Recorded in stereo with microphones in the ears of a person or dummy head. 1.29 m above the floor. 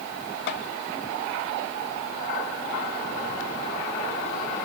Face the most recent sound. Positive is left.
turn(degrees=65)  # may be behind; listen again after turning